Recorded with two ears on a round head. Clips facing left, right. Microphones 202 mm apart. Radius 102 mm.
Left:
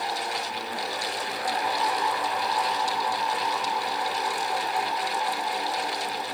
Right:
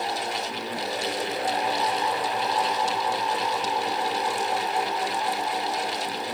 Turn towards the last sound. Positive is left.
No sound to turn to.